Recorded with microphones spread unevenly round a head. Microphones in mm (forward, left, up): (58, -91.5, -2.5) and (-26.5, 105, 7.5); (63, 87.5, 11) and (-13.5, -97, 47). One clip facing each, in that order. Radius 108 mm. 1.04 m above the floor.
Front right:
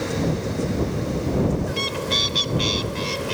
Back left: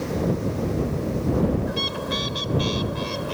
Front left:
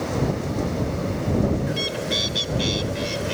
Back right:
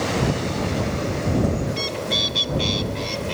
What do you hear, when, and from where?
1.7 s a bird: 15° right